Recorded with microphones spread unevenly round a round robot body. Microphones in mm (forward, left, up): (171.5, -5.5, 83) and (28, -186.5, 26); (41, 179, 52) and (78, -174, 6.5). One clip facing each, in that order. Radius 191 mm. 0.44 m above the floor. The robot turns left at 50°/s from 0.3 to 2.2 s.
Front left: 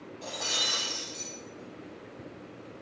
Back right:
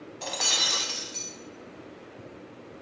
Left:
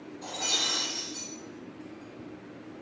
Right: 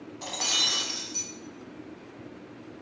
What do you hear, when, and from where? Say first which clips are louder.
0.2 s breaking glass: back right 2 dB, left 2 dB; 130° right, 0.5 m; by 1.3 s straight behind, 0.5 m